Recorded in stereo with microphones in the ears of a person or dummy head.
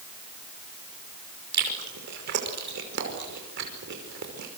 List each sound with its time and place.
1.5 s chewing: 60° right (ahead or behind), 5.5 m